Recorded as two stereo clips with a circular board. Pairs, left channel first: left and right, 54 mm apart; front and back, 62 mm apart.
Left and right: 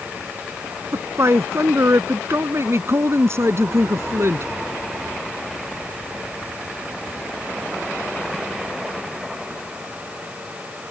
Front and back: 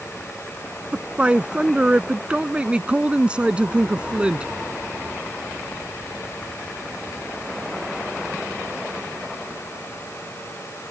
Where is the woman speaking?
110° right.